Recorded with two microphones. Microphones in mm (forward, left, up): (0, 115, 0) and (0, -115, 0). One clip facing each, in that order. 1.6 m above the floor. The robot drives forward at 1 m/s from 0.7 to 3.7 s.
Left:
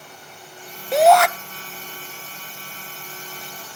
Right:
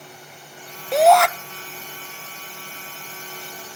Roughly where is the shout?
Centre.